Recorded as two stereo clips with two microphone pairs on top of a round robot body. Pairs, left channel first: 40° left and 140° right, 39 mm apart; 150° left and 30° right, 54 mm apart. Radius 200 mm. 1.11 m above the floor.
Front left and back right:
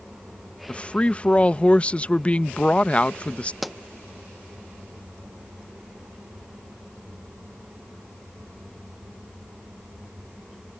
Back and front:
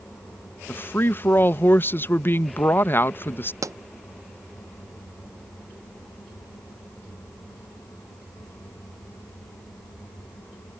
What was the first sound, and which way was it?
A woman speaking, 100° left.